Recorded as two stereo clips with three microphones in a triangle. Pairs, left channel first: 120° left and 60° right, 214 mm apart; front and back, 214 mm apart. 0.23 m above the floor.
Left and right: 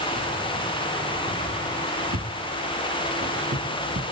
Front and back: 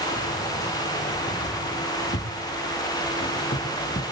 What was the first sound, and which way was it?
Keys jangling, 40° right.